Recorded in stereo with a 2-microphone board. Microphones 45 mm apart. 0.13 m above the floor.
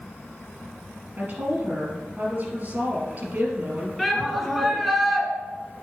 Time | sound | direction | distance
1.2 | a woman speaking | 40° right (ahead or behind) | 3 m
4.0 | a shout | centre (ahead or behind) | 1.7 m